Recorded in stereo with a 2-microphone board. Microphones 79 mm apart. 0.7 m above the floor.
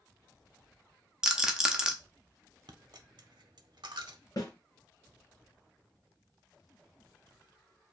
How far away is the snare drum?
About 2 m.